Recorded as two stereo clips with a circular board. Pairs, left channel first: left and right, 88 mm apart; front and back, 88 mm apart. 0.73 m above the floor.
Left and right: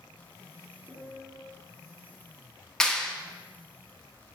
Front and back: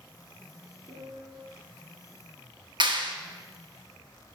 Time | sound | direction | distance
0.9 | a piano | 155° right | 1.9 m
2.8 | a clap | 175° left | 1.1 m